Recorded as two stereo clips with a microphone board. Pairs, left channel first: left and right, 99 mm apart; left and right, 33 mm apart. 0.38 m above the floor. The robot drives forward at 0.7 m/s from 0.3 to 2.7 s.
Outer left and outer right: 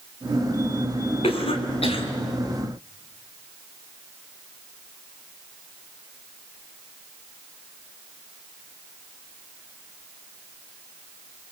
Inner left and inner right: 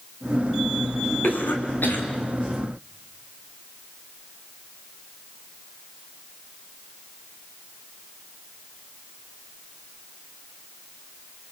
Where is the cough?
70° left (ahead or behind), 4.5 m.